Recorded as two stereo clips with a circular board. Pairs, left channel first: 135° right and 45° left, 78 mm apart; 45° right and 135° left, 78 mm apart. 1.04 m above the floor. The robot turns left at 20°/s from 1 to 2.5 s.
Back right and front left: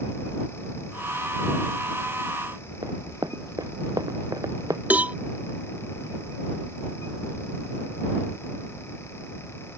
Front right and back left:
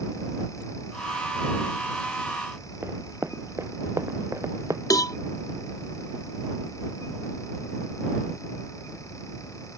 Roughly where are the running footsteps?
Left.